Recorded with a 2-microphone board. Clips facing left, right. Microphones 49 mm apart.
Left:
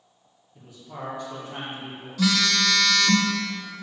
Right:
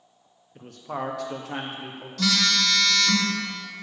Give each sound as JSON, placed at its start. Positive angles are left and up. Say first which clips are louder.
{"t": 0.6, "sound": "a man speaking", "louder": "right 7 dB", "side_deg": -50, "distance_m": 0.8}
{"t": 2.2, "sound": "a phone buzzing", "louder": "left 1 dB", "side_deg": 10, "distance_m": 0.8}